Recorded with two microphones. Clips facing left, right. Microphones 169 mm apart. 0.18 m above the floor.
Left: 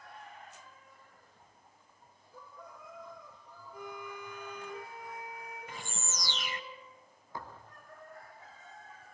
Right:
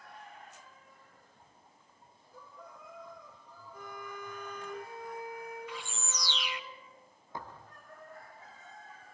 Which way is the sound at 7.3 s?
20° right (ahead or behind).